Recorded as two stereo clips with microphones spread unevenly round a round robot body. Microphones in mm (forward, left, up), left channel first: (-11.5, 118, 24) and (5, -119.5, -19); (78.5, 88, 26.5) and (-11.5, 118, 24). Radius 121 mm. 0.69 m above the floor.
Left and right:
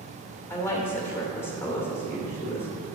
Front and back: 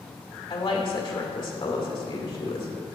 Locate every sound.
0.5 s a woman speaking: 10° left, 2 m